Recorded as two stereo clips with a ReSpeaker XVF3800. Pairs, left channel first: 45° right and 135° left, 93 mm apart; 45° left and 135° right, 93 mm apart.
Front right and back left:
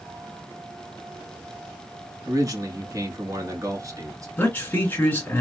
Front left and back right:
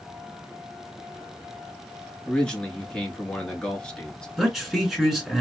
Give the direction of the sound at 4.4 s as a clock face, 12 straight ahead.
1 o'clock.